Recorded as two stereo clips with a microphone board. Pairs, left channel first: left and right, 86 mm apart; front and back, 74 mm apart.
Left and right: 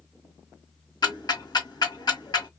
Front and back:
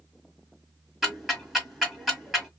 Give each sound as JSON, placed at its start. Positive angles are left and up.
{"t": 1.0, "sound": "ticking", "azimuth_deg": 95, "distance_m": 1.7}